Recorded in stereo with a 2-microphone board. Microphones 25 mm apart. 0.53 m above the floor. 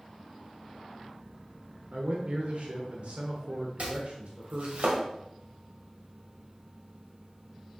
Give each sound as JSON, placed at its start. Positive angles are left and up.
{"t": 1.9, "sound": "a man speaking", "side_deg": -60, "distance_m": 1.3}
{"t": 3.8, "sound": "chopping", "side_deg": -70, "distance_m": 1.9}